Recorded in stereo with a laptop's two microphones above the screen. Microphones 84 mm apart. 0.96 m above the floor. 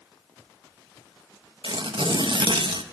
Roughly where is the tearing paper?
Right.